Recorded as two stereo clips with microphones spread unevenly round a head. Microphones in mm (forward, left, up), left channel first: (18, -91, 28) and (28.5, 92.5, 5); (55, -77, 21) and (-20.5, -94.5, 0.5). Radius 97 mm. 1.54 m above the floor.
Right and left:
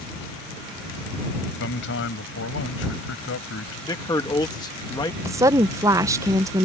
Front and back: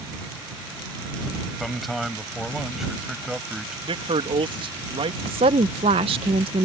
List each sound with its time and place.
1.6 s a man speaking: 75° right; by 3.8 s 80° right
3.9 s a man speaking: 165° right
5.2 s a woman speaking: 165° left